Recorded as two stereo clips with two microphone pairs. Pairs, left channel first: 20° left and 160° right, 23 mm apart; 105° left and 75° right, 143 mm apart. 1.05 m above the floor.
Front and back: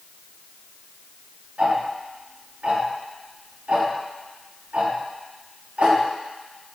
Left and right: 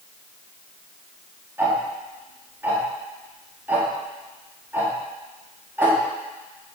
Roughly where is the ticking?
Behind right.